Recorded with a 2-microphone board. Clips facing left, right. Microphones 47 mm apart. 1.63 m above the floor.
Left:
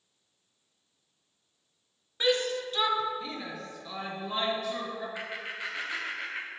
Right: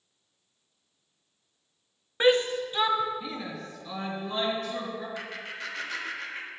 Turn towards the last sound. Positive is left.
turn(degrees=15)  # may be behind; listen again after turning